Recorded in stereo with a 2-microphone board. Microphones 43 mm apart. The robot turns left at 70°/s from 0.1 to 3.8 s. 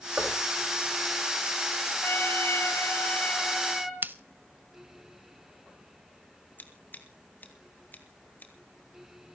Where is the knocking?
40° right (ahead or behind), 4.5 m; by 0.5 s 15° right (ahead or behind), 4.5 m.